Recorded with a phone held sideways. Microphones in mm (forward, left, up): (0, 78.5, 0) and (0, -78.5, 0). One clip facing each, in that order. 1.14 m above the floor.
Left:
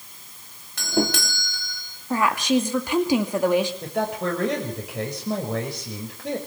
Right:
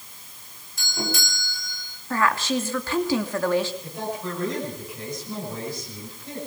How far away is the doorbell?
About 3 m.